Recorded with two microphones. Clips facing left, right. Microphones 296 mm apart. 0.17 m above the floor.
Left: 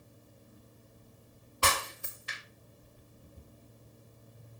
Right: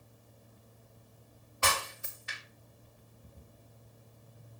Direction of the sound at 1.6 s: 40° left (ahead or behind).